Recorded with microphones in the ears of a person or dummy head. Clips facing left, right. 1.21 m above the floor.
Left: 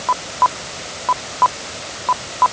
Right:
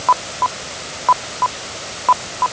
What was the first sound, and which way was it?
Only background noise.